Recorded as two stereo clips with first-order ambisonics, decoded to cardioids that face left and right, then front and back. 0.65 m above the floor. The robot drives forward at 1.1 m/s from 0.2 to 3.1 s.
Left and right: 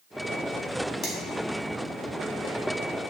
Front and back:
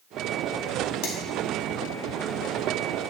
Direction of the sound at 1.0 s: 25° left.